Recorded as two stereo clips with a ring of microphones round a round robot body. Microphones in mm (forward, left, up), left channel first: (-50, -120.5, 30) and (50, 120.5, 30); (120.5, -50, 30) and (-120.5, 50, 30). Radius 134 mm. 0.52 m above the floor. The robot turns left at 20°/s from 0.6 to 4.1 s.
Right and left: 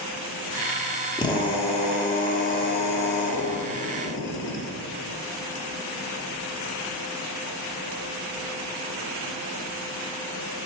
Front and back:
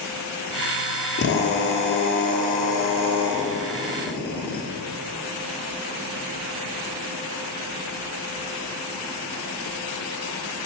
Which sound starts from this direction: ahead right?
A drill, at 1.2 s.